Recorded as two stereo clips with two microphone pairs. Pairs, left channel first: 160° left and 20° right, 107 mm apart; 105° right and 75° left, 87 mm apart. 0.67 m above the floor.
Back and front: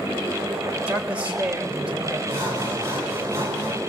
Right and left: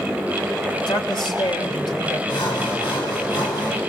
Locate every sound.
0.9 s a man speaking: 100° right, 2.5 m
2.3 s sawing: 80° right, 5.5 m